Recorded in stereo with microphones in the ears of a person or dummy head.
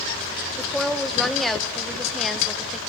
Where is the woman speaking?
Centre (ahead or behind), 1.7 m.